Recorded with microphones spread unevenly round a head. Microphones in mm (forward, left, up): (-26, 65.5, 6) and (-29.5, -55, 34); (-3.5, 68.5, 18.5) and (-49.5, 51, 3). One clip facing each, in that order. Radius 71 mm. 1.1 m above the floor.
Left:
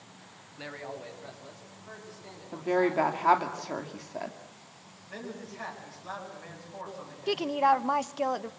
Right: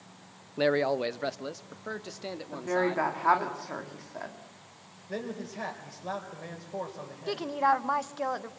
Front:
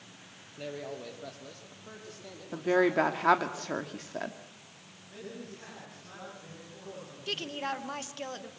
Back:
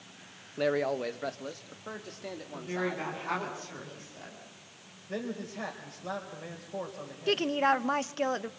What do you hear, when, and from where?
0.6 s a man speaking: 120° right, 0.5 m; by 3.5 s 95° right, 2.5 m
2.5 s a woman speaking: 15° left, 2 m
5.1 s a man speaking: 135° right, 4.5 m
7.3 s a woman speaking: 160° left, 1.0 m